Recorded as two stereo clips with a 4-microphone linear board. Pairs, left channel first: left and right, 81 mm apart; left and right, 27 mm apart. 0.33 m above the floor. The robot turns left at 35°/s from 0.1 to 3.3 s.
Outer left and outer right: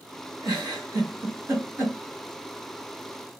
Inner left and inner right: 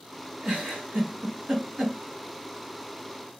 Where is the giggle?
60° right (ahead or behind), 1.3 m; by 2.0 s 25° right (ahead or behind), 1.3 m.